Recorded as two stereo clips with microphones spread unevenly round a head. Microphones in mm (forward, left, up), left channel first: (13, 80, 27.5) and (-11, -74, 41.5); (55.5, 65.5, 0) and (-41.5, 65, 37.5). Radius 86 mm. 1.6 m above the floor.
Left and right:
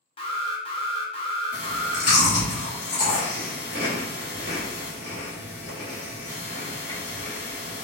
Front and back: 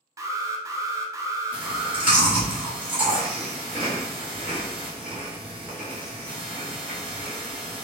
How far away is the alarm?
About 0.6 m.